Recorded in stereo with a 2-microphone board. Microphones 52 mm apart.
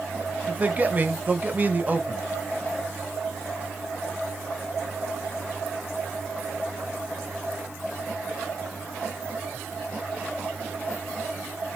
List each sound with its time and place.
0.5 s a man speaking: 30° right (ahead or behind), 1.0 m